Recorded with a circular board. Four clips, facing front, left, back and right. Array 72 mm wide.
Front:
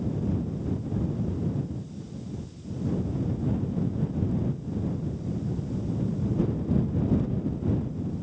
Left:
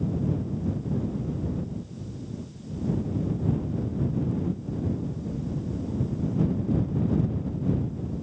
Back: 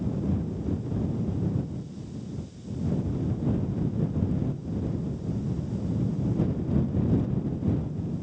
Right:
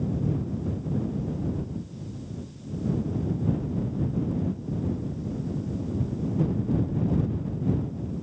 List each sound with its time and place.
Only background noise.